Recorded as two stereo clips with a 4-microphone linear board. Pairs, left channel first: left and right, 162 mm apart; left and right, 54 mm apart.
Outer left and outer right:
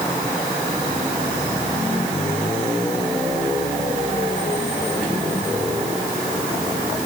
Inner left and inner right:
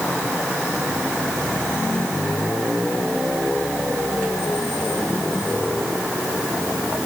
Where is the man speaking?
No man speaking in this recording.